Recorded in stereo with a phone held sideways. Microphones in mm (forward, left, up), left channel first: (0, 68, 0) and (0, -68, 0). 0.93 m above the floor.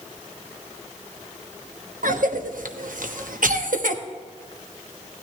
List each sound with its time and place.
2.0 s a cough: 80° right, 1.0 m